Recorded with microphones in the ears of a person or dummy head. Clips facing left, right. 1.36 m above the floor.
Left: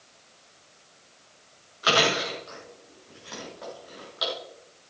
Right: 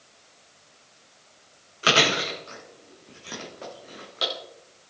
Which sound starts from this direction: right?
Chewing, at 1.8 s.